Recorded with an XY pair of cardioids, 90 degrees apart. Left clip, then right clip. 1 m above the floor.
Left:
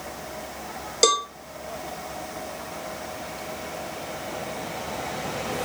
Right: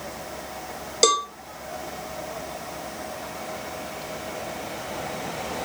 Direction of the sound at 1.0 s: Straight ahead.